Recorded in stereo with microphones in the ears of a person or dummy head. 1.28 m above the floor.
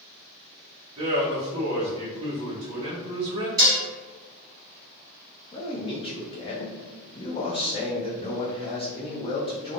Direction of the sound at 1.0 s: 35° right (ahead or behind).